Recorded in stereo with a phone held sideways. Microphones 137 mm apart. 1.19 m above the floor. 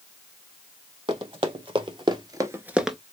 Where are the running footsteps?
40° right (ahead or behind), 3 m; by 3.0 s centre (ahead or behind), 1.1 m.